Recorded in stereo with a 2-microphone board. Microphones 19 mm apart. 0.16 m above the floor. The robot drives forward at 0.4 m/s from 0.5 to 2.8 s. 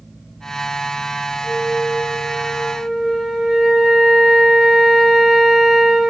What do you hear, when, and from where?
1.4 s a flute: 85° left, 2.5 m; by 6.1 s 75° left (ahead or behind), 2.5 m